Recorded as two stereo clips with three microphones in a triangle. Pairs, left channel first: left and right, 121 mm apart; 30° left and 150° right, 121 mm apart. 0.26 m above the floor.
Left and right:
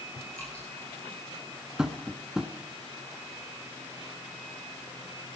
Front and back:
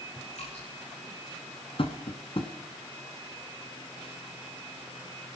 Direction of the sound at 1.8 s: 5° right.